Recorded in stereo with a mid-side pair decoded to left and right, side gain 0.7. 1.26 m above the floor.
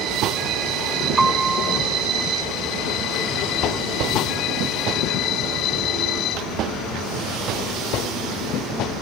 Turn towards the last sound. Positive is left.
turn(degrees=-10)